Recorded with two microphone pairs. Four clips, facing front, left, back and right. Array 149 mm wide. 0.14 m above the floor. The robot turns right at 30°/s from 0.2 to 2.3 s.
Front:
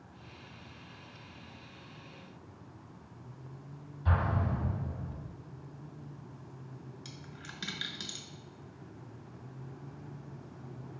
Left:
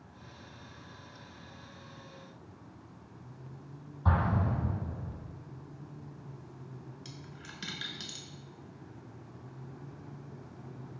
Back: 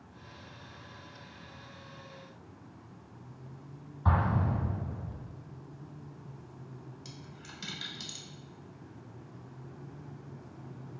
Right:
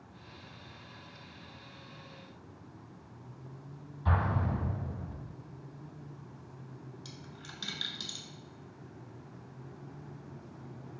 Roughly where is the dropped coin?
Ahead.